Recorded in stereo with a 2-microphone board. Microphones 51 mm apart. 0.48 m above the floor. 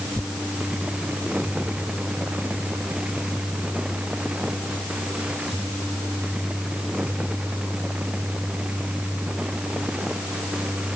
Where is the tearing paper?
35° right (ahead or behind).